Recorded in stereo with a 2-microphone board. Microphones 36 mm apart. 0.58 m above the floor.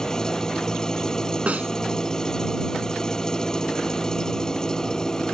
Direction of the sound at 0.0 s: 20° left (ahead or behind).